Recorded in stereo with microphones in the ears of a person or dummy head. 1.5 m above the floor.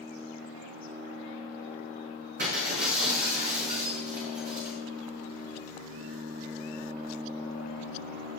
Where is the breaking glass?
55° right (ahead or behind), 5 m.